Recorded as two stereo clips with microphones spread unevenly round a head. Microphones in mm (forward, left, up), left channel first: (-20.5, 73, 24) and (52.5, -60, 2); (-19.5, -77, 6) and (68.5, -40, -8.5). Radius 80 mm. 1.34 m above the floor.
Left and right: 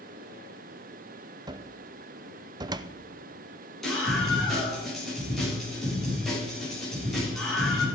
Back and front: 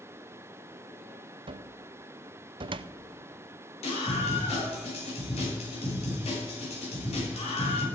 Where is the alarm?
No alarm in this recording.